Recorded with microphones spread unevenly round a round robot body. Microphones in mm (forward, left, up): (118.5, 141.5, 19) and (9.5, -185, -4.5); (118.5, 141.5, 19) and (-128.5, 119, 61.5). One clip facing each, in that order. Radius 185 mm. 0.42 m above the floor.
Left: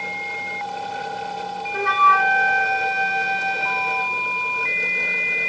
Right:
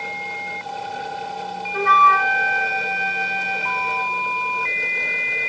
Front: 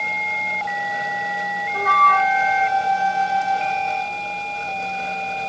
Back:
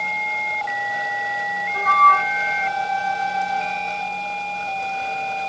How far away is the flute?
About 0.7 m.